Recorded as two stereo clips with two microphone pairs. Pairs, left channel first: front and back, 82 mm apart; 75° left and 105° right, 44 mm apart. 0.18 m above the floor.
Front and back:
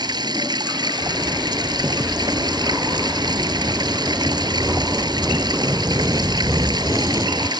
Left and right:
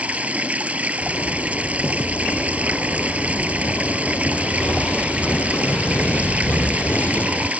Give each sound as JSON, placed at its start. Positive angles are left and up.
{"t": 0.0, "sound": "running water", "azimuth_deg": -160}
{"t": 1.0, "sound": "a zipper", "azimuth_deg": 120}